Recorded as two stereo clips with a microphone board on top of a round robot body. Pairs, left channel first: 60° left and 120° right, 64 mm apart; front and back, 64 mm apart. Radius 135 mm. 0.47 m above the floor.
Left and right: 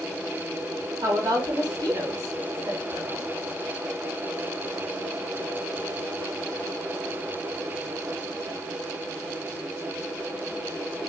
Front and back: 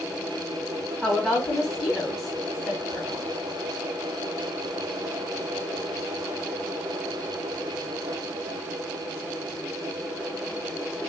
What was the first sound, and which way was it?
A woman speaking, 80° right.